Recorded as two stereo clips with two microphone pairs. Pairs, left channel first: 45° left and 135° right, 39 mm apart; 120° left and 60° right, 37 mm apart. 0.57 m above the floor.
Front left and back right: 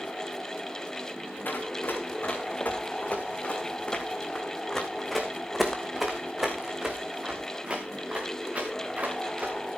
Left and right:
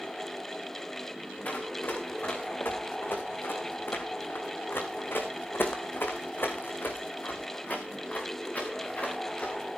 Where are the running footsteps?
80° left, 3.5 m; by 9.6 s 175° left, 4.5 m.